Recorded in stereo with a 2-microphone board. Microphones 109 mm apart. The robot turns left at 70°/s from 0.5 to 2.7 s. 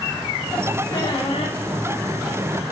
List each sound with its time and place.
0.9 s a squeak: 150° left, 7.5 m; by 1.6 s 100° left, 7.5 m